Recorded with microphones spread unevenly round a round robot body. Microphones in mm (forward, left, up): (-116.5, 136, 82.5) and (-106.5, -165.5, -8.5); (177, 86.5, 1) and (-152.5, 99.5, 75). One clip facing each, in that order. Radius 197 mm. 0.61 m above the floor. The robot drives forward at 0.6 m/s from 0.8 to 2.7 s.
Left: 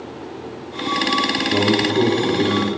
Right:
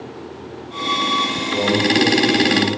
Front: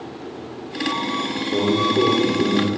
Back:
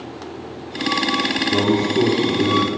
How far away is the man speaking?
About 1.3 m.